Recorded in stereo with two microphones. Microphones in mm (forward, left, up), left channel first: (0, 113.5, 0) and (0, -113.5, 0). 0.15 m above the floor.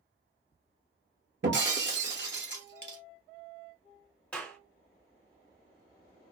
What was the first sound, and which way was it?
Breaking glass, 55° right (ahead or behind).